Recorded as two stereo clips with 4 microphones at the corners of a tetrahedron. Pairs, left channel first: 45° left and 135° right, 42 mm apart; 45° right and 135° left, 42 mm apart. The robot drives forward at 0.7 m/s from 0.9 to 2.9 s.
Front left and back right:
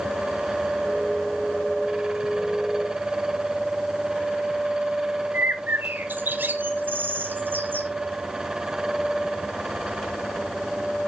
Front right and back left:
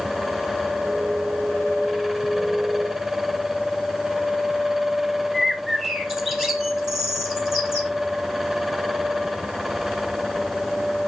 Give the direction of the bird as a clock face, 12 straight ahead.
5 o'clock.